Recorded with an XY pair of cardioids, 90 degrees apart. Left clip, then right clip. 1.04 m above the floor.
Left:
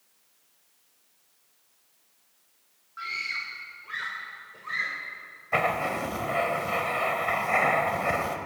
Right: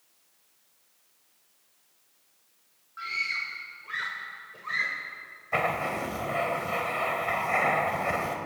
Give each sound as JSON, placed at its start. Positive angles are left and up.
{"t": 3.0, "sound": "a scream", "azimuth_deg": 10, "distance_m": 2.5}
{"t": 5.5, "sound": "writing", "azimuth_deg": 15, "distance_m": 3.5}